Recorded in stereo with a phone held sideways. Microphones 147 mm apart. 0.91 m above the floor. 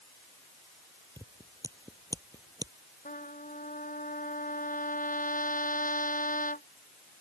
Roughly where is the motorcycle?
No motorcycle in this recording.